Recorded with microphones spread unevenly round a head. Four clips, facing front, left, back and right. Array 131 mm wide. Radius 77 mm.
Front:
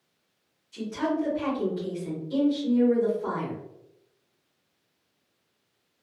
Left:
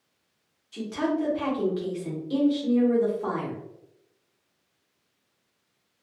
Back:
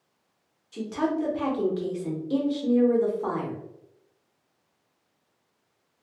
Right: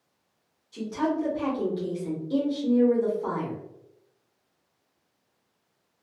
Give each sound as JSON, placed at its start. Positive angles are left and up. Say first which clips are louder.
{"t": 0.7, "sound": "a woman speaking", "louder": "even, back 1 dB", "azimuth_deg": 165, "distance_m": 1.2}